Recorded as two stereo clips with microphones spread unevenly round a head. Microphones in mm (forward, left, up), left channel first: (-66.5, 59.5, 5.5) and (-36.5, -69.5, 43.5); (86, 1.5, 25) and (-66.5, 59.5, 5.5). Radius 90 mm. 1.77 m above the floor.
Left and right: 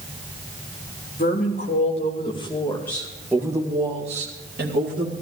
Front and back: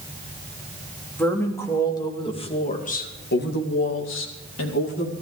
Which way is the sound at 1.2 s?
60° left.